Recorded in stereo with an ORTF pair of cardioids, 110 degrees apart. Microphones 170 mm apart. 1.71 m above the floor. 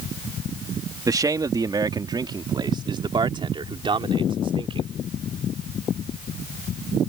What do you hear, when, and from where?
1.1 s a man speaking: 20° right; by 4.9 s 30° right